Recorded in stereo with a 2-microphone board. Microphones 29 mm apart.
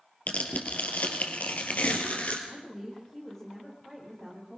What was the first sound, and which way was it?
Tearing paper, 55° left (ahead or behind).